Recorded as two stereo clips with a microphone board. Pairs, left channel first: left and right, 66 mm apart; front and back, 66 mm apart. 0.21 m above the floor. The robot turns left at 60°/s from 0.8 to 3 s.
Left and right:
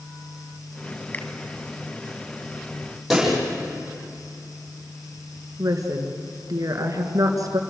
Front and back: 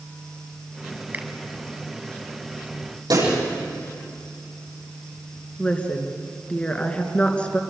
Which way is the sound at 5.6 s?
70° right.